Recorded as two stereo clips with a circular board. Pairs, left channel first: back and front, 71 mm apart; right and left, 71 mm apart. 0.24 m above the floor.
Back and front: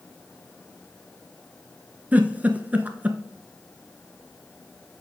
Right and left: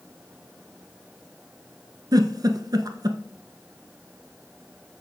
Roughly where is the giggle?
Ahead left.